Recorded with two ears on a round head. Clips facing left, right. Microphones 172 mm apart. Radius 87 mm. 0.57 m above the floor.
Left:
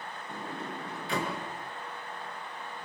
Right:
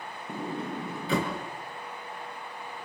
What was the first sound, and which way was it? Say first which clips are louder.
A sliding door: right 6 dB; 70° right (ahead or behind).